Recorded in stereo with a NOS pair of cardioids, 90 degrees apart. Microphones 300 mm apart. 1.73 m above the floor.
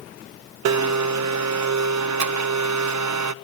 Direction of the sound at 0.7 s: 70° right.